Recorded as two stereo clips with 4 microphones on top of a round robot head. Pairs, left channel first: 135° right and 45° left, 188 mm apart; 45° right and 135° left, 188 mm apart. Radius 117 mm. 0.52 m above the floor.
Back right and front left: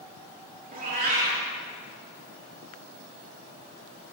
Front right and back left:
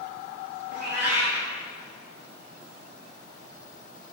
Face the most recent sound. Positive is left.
turn(degrees=-5)